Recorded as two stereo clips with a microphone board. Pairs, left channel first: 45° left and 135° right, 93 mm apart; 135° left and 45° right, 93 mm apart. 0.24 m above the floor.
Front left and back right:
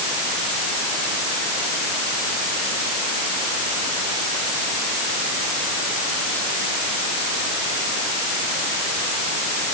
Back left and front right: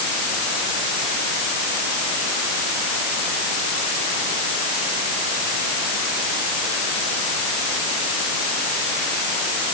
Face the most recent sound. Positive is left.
No sound to turn to.